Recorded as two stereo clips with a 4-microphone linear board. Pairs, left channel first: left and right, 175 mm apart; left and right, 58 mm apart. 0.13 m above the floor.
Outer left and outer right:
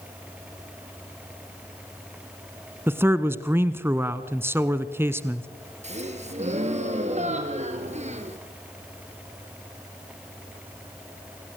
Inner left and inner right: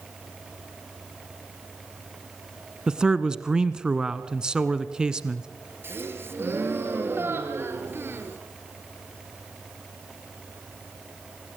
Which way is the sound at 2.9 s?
15° right (ahead or behind).